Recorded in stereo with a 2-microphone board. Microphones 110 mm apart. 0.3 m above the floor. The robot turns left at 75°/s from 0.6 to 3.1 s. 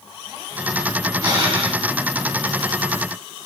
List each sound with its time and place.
1.2 s breathing: 35° right, 1.0 m; by 1.8 s 80° right, 1.0 m